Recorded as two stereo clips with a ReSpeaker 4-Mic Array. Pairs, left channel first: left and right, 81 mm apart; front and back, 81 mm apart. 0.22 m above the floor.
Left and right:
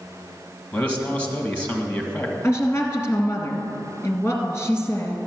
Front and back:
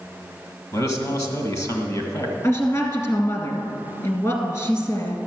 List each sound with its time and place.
0.7 s a man speaking: 25° left, 1.7 m
2.4 s a woman speaking: 40° left, 1.7 m